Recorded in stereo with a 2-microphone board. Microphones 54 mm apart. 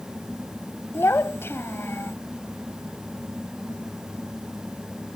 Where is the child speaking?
45° left (ahead or behind).